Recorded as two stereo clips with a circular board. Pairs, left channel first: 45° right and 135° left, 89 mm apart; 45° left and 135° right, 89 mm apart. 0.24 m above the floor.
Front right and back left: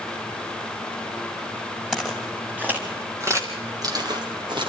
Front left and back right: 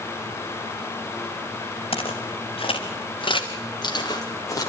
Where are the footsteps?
50° left, 3.5 m; by 4.7 s 100° left, 3.5 m.